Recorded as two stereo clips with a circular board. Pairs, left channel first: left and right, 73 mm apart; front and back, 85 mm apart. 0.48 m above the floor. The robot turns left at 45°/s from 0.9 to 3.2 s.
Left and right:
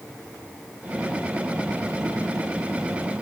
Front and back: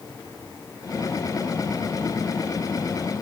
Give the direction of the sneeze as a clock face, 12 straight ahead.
No sneeze in this recording.